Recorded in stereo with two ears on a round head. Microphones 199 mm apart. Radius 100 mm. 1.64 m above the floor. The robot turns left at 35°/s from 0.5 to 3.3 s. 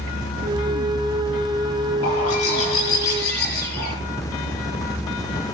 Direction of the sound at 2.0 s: 95° left.